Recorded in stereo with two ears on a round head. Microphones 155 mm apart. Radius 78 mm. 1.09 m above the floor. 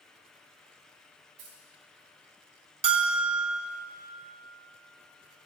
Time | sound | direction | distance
1.4 | keys jangling | 40° right (ahead or behind) | 3 m
2.8 | a bell | 35° right (ahead or behind) | 0.7 m